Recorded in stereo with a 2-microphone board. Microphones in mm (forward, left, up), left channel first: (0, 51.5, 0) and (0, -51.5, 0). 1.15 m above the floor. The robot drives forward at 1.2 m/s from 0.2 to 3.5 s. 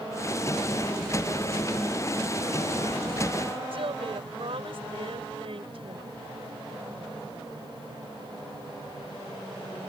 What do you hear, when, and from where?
3.7 s a woman speaking: 65° right (ahead or behind)